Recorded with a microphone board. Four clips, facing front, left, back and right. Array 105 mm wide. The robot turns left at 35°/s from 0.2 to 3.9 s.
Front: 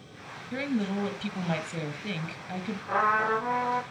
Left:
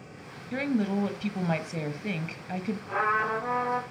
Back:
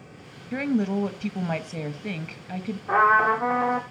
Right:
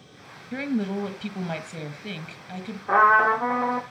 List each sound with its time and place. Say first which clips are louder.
0.5 s a woman speaking: even, back 5 dB; straight behind, 1.1 m; by 2.8 s 100° left, 1.1 m
2.9 s a trumpet: right 10 dB, back 6 dB; 115° right, 3 m; by 3.8 s 145° right, 3 m